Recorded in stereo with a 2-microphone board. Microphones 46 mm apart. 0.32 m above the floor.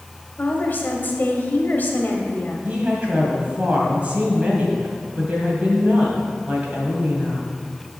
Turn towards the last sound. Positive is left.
turn(degrees=-30)  # may be behind; listen again after turning